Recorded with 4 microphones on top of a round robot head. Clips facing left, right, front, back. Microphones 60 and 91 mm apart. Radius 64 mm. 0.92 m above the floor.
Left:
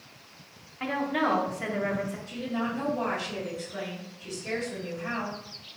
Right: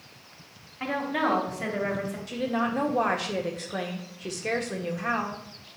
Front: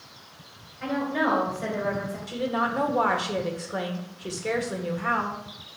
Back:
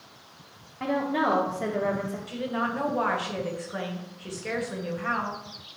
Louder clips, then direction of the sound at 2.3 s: Right 7 dB, front 4 dB; 65° right.